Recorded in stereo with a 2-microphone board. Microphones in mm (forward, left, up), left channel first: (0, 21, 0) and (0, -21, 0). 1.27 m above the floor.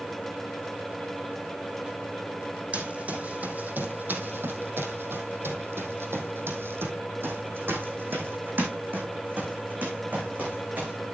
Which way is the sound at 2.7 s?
35° right (ahead or behind).